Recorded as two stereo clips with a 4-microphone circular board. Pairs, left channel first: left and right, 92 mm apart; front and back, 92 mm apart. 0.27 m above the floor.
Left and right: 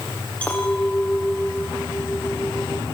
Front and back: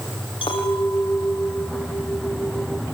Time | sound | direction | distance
0.4 | a clink | 15° left | 7.5 m